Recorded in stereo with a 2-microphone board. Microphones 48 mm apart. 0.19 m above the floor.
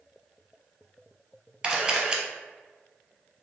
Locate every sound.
1.6 s a camera shutter: 20° right (ahead or behind), 1.1 m